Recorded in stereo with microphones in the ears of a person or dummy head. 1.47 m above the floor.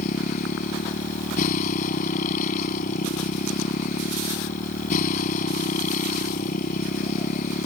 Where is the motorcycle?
50° left (ahead or behind).